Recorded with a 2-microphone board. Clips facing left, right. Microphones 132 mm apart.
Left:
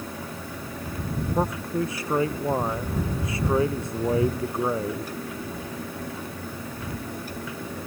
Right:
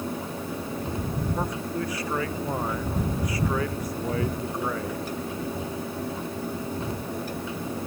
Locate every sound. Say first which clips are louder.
1.4 s a man speaking: left 3 dB; 25° left (ahead or behind)